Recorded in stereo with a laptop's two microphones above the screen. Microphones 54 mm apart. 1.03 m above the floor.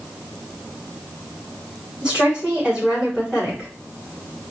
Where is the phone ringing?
I don't hear a phone ringing.